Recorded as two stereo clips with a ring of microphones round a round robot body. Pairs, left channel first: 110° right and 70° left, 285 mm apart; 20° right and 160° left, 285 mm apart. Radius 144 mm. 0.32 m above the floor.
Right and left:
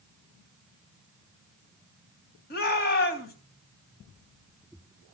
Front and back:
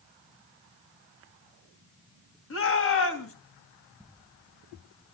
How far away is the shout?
About 3 m.